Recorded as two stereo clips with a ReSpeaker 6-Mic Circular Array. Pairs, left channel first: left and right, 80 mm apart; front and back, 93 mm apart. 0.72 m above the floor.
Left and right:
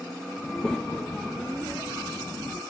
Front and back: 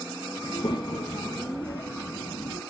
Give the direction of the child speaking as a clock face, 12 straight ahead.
12 o'clock.